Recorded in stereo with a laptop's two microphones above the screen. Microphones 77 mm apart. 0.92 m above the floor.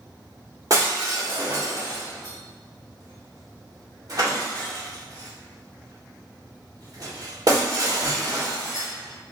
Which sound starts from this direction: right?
Breaking glass, at 0.7 s.